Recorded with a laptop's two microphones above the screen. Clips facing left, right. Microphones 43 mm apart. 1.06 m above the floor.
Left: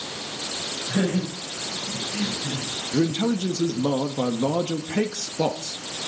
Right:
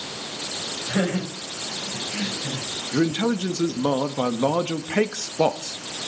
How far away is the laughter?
About 5 m.